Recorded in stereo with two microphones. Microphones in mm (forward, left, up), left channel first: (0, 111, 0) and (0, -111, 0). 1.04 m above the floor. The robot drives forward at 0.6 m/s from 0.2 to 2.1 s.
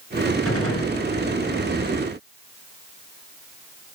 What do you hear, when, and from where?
0.5 s a gunshot: 80° left, 4.5 m